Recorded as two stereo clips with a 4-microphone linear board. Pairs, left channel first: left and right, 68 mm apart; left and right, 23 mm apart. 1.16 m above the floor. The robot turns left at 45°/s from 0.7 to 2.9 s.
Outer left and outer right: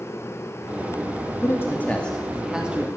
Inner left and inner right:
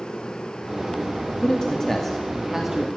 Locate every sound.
1.4 s a man speaking: 40° left, 2.5 m; by 2.9 s 25° right, 2.5 m